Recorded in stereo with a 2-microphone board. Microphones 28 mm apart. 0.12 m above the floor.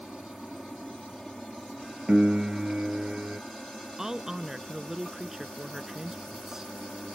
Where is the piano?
45° right (ahead or behind).